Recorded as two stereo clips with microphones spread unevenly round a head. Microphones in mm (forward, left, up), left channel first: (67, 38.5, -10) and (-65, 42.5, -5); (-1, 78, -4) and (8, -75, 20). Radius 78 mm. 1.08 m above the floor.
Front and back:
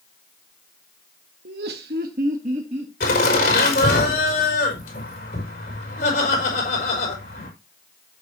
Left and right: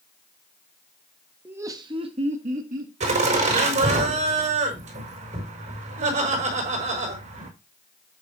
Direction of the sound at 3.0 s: 40° right.